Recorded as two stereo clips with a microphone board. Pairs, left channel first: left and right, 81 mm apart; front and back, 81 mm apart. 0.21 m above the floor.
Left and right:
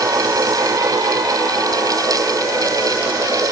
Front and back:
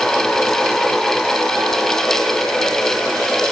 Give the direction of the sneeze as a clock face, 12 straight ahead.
I don't hear a sneeze.